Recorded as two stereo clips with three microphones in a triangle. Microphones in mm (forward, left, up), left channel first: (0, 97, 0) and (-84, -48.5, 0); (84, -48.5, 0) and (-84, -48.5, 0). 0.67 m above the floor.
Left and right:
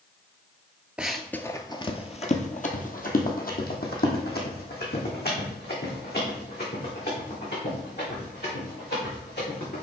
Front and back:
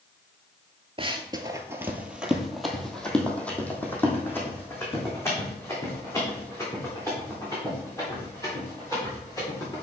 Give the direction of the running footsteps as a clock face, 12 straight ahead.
7 o'clock.